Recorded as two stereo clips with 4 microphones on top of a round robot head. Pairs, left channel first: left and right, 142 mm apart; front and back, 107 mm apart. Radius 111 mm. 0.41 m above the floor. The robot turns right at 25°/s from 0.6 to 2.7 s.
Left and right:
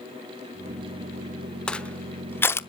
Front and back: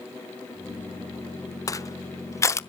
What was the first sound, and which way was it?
Crushing, 10° left.